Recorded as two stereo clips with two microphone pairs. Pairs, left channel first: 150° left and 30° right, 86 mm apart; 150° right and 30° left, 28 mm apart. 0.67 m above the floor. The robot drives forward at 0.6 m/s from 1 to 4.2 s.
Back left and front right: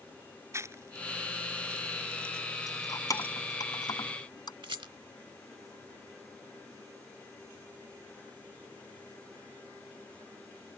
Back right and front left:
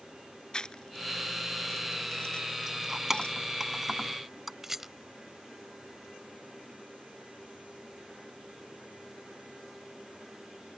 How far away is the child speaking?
No child speaking in this recording.